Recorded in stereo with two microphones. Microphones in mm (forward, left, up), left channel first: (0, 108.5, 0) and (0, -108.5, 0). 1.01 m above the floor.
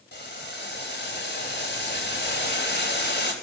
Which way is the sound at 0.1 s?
50° left (ahead or behind).